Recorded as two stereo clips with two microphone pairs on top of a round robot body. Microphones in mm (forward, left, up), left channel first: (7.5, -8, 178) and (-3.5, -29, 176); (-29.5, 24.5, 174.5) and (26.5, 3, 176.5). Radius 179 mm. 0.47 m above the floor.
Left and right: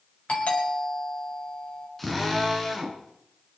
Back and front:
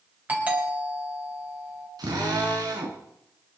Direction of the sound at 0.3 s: 45° left.